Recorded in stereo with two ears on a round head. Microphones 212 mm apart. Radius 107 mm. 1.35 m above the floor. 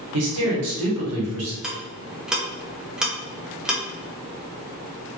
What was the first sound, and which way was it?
A man speaking, 75° right (ahead or behind).